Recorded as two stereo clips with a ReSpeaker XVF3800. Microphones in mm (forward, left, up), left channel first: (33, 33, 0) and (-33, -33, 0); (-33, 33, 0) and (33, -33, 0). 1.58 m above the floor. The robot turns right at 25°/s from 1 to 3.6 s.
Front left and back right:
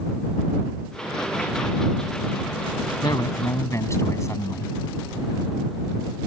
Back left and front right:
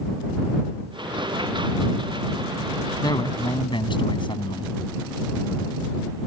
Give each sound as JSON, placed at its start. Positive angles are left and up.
{"t": 3.0, "sound": "a man speaking", "azimuth_deg": 90}